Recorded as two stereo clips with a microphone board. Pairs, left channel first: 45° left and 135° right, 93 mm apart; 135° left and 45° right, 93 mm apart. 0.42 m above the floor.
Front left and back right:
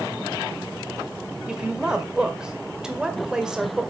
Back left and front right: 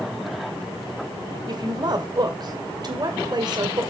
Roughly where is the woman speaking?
Ahead right.